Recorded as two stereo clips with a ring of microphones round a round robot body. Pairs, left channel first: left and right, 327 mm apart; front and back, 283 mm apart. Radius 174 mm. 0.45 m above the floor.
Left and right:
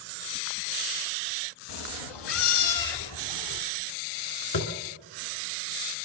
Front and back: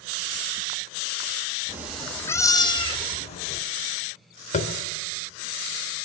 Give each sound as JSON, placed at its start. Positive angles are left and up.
{"t": 1.7, "sound": "a cat meowing", "azimuth_deg": 100, "distance_m": 1.2}
{"t": 4.5, "sound": "tapping", "azimuth_deg": 65, "distance_m": 2.0}